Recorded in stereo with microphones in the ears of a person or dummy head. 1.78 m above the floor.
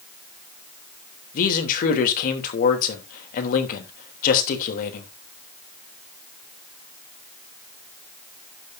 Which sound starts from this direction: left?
A man speaking, at 1.3 s.